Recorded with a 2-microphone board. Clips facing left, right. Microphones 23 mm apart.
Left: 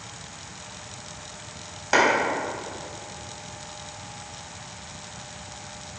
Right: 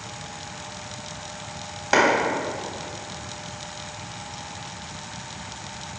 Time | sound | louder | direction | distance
1.9 | a clap | right 1 dB | 10° right (ahead or behind) | 3.5 m